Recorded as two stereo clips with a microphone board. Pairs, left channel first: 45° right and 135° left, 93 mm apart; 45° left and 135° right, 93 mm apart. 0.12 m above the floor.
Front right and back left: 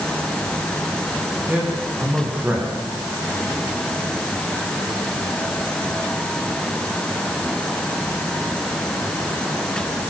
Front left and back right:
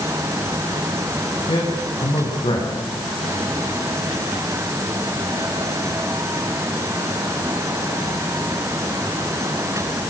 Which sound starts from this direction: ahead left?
A man speaking, at 1.5 s.